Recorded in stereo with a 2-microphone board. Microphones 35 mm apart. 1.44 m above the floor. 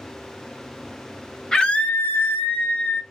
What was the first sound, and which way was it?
A scream, 20° left (ahead or behind).